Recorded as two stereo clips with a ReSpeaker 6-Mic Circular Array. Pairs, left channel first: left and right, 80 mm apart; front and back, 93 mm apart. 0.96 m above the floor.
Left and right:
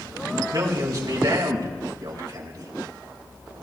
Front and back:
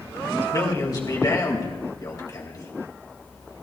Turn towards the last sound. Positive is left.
turn(degrees=-50)